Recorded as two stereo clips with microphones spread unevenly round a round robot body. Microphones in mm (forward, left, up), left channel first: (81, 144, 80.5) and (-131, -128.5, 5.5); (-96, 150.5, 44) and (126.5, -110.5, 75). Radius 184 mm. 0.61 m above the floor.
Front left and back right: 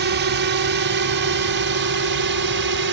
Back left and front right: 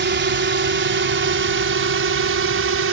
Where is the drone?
100° right; by 2.9 s 95° right.